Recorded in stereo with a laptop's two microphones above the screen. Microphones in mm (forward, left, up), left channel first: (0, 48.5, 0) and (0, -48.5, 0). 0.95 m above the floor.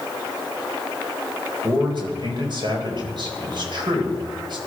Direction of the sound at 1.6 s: 55° right (ahead or behind).